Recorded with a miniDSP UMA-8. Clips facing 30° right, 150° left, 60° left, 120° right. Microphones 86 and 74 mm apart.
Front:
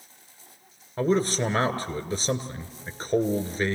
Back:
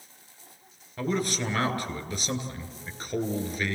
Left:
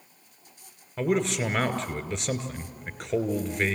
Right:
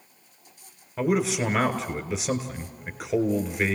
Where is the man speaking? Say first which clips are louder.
Front 5 dB, right 2 dB; 40° right, 1.6 m.